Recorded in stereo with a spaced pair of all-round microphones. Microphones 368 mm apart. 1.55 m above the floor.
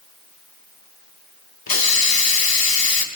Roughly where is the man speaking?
No man speaking in this recording.